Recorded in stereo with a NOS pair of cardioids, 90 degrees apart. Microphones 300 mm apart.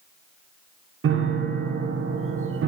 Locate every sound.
1.0 s a piano: 45° right, 1.3 m